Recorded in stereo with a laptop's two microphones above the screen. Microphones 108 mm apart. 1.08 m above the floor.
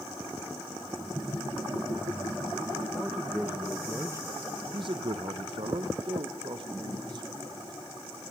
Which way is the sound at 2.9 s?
5° right (ahead or behind).